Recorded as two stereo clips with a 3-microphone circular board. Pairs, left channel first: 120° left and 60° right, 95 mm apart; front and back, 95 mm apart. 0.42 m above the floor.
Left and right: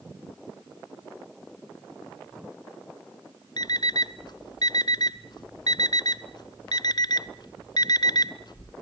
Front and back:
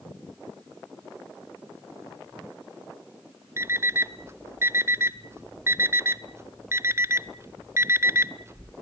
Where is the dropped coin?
No dropped coin in this recording.